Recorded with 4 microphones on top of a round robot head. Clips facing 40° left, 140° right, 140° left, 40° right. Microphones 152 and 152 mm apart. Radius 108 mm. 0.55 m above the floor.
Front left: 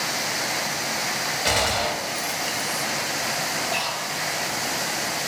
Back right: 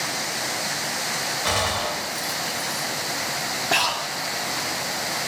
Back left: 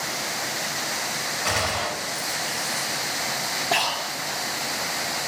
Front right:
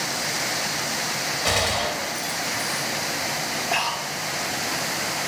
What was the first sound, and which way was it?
A gunshot, 25° right.